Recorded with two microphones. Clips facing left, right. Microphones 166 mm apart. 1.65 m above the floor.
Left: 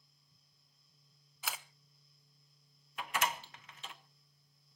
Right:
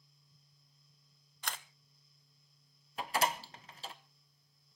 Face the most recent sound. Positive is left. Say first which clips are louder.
# right 3 dB
turn(degrees=-35)  # may be behind; listen again after turning